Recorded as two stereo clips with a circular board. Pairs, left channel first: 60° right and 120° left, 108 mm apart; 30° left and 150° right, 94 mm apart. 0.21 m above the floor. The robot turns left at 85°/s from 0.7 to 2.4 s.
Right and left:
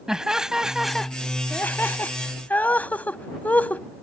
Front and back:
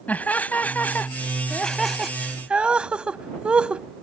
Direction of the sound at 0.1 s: 50° left.